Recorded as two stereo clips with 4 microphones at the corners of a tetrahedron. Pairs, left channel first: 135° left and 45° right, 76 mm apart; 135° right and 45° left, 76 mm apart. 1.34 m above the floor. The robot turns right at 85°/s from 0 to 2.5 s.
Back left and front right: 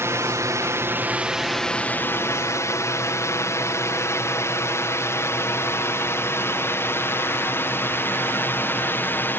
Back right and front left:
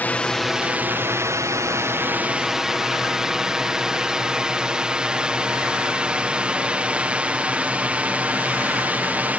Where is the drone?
80° right; by 9.4 s 100° left.